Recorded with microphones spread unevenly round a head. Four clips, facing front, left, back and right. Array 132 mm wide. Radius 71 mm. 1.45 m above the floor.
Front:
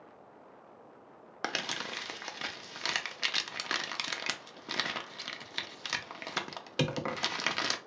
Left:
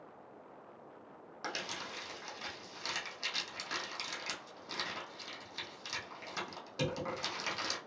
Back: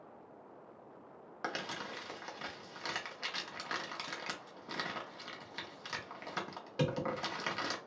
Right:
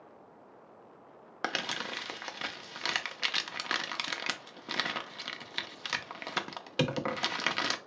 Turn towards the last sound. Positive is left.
turn(degrees=-40)